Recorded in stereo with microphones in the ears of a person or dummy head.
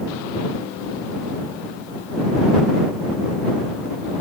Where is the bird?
No bird in this recording.